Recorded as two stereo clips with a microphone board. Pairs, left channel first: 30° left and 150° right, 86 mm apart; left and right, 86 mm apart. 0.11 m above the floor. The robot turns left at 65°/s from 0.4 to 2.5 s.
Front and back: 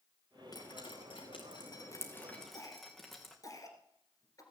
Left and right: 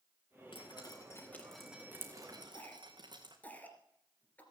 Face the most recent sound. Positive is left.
turn(degrees=30)